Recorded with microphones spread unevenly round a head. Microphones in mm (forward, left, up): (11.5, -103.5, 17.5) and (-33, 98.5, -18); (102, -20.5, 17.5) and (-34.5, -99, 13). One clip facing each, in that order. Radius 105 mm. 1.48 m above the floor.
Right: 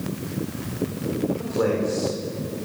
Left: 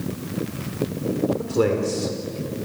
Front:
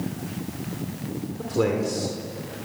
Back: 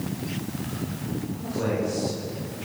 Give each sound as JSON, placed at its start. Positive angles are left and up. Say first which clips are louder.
{"t": 1.4, "sound": "a man speaking", "louder": "left 2 dB, front 5 dB", "azimuth_deg": 55, "distance_m": 4.0}